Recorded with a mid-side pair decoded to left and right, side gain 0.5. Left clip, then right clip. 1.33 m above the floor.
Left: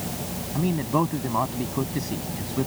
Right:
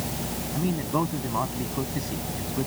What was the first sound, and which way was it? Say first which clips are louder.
A man speaking: left 3 dB; 25° left.